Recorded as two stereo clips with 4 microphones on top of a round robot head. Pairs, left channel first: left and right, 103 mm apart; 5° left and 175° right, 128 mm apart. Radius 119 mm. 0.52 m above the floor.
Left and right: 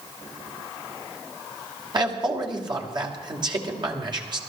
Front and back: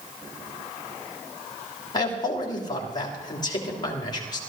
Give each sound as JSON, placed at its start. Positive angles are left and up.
{"t": 1.9, "sound": "a man speaking", "azimuth_deg": -50, "distance_m": 3.0}